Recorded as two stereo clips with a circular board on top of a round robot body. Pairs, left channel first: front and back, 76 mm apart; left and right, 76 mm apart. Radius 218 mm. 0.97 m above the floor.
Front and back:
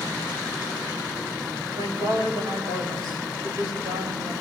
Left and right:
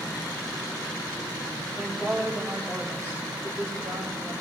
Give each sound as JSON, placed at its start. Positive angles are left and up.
{"t": 1.8, "sound": "a woman speaking", "azimuth_deg": -165, "distance_m": 6.5}